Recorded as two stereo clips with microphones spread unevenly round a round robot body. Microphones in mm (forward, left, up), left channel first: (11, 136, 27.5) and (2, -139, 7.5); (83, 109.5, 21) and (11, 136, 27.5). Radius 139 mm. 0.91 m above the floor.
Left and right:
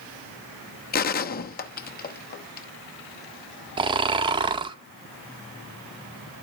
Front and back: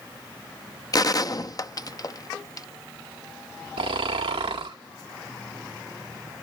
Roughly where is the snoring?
Behind.